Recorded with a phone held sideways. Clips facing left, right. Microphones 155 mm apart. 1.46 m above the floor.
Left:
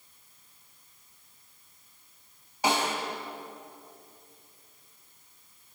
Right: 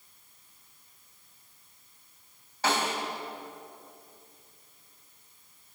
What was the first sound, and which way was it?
A snare drum, 15° left (ahead or behind).